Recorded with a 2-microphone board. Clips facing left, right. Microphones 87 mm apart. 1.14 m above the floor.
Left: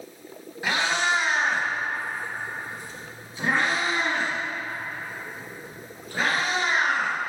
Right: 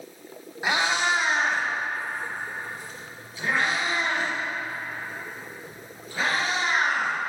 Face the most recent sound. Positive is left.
turn(degrees=45)  # may be behind; listen again after turning